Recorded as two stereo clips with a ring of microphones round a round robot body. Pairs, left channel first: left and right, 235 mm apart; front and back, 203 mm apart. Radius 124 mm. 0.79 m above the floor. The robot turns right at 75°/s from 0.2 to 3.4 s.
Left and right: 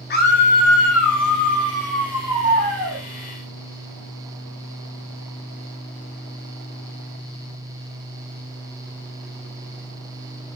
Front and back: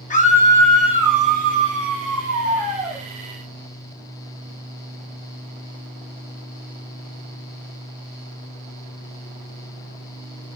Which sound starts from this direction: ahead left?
A scream, at 0.1 s.